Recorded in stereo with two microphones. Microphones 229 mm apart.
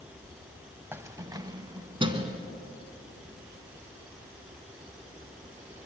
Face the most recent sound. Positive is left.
turn(degrees=-20)  # may be behind; listen again after turning